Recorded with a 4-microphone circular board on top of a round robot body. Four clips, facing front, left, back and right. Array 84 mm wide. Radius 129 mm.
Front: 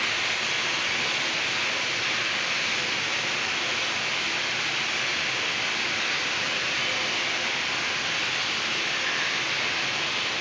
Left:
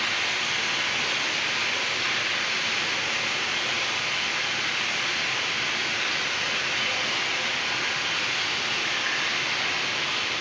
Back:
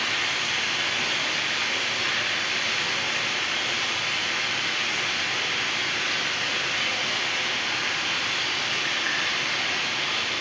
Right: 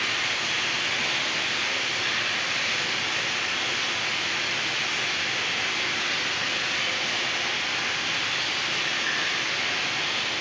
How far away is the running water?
About 1.2 m.